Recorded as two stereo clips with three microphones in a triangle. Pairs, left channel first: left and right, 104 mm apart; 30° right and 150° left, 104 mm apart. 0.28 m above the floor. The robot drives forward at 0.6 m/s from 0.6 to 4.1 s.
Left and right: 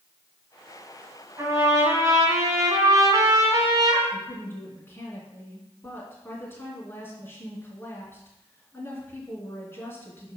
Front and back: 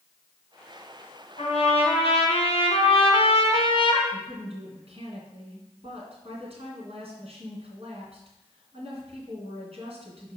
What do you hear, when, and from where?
1.4 s a trumpet: 25° right, 2.5 m; by 4.0 s 55° right, 1.5 m
4.1 s a woman speaking: 155° left, 3 m